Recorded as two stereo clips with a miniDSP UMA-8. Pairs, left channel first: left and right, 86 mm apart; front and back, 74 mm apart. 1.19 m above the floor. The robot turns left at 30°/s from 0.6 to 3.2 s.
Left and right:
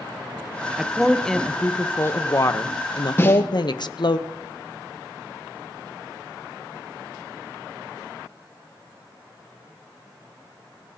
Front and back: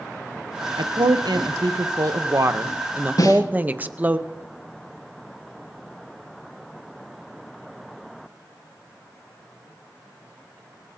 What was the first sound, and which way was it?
A woman speaking, 170° right.